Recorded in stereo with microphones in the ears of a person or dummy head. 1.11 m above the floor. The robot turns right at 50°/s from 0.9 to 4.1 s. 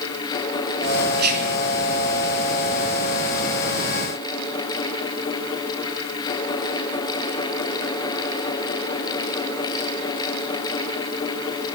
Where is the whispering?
50° right (ahead or behind), 0.8 m; by 1.6 s 70° right (ahead or behind), 0.8 m.